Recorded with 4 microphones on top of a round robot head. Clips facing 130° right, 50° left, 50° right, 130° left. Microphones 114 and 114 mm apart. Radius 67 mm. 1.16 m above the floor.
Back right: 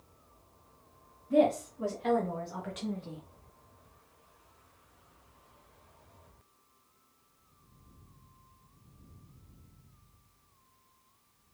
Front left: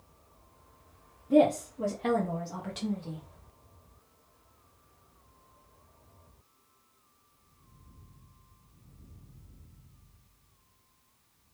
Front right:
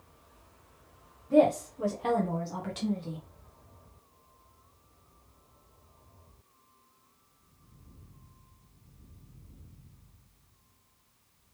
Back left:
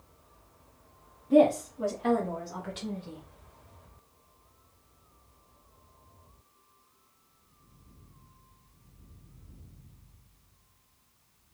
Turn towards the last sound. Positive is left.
turn(degrees=-15)